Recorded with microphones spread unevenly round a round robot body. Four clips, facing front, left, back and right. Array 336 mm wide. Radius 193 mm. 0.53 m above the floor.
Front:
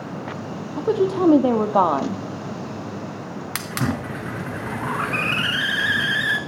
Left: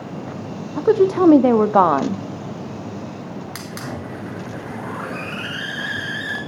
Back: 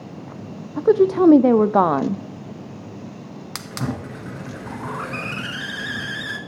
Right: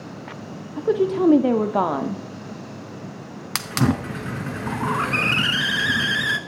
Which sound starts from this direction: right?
A hiss, at 3.5 s.